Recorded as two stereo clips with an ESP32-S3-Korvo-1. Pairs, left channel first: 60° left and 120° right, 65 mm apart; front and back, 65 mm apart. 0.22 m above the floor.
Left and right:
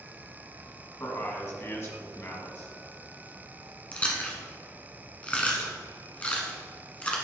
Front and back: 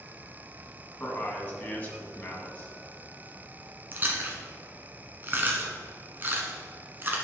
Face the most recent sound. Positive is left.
turn(degrees=125)